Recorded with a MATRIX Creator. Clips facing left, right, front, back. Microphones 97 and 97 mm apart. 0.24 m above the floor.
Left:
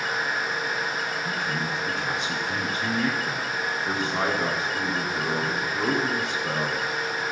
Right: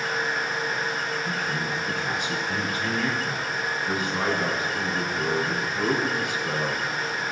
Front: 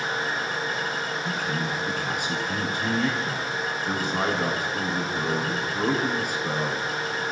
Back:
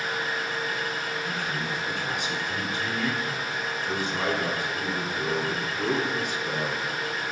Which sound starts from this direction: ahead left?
A man speaking, at 1.2 s.